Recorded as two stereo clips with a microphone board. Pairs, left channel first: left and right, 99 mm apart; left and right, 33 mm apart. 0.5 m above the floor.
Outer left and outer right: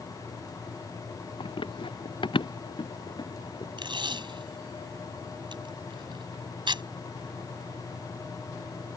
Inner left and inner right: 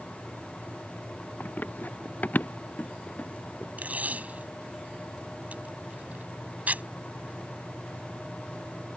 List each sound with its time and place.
1.4 s running footsteps: 60° left (ahead or behind); by 3.7 s 45° left (ahead or behind)
3.8 s tape being pulled: 50° right (ahead or behind)